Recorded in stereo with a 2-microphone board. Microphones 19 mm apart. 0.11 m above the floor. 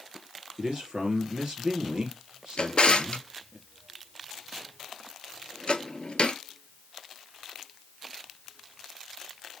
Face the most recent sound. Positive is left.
turn(degrees=55)  # may be behind; listen again after turning